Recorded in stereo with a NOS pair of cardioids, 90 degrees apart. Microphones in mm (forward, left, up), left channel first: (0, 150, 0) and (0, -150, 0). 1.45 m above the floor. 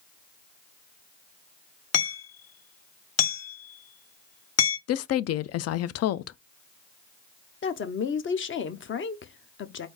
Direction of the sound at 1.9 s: 55° left.